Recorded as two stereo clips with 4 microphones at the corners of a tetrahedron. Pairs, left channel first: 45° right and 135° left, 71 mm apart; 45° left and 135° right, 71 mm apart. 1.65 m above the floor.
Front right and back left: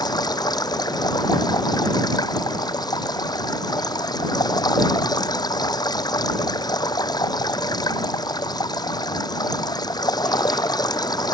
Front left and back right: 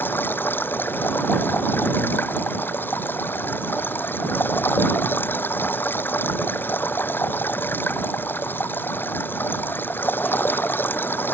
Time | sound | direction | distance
0.0 | running water | 15° right | ?